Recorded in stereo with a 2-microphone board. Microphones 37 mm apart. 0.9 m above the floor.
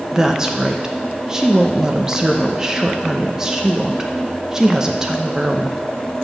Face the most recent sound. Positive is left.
turn(degrees=-15)  # may be behind; listen again after turning